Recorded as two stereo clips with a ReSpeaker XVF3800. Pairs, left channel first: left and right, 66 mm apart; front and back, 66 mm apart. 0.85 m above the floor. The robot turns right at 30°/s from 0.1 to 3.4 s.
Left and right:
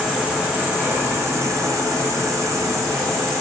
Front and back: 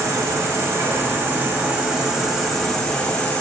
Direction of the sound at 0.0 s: 155° right.